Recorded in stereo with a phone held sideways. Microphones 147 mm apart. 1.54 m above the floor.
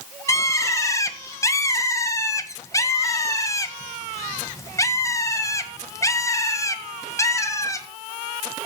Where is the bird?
20° left (ahead or behind), 1.5 m.